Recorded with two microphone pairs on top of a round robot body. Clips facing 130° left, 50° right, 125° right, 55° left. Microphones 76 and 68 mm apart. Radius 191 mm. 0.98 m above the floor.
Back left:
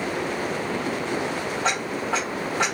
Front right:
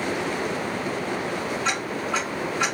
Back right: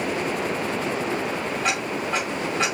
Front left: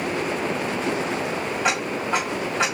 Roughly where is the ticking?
Behind left.